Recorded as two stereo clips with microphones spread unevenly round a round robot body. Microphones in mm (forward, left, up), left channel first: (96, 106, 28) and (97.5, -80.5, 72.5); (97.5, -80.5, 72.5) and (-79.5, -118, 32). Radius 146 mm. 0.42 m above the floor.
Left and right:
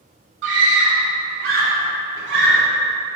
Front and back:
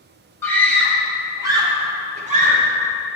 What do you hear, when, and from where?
0.4 s a scream: 70° right, 3 m; by 2.6 s 130° right, 3.5 m